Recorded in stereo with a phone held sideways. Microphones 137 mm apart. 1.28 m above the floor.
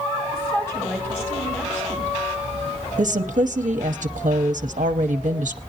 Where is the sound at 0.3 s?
20° left (ahead or behind), 9 m.